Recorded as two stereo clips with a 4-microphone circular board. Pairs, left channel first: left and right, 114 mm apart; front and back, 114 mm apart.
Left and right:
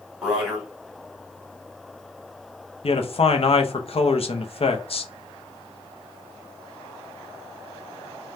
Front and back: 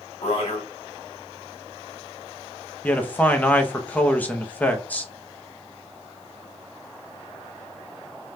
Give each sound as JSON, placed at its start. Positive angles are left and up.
{"t": 0.2, "sound": "a man speaking", "azimuth_deg": -5, "distance_m": 1.7}
{"t": 2.8, "sound": "a man speaking", "azimuth_deg": 75, "distance_m": 0.6}